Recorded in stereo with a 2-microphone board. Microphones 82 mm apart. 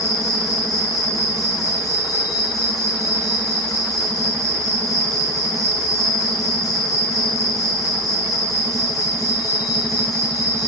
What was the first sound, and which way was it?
An insect, 45° left (ahead or behind).